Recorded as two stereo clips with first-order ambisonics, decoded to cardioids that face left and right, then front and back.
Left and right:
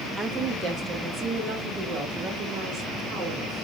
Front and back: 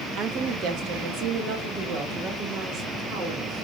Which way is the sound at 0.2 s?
160° right.